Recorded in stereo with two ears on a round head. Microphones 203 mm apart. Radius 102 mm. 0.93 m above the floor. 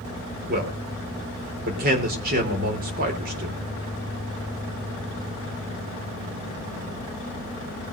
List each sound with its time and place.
0.5 s a man speaking: 45° right (ahead or behind), 3.5 m